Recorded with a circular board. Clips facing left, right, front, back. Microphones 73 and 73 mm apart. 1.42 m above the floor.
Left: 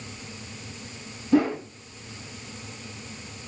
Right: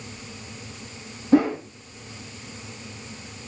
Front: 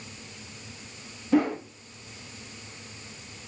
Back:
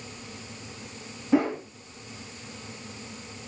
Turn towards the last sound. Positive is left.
turn(degrees=-105)